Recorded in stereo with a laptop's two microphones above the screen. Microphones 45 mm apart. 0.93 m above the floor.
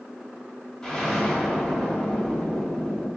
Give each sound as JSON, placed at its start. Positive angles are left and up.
{"t": 0.8, "sound": "an explosion", "side_deg": 10, "distance_m": 1.5}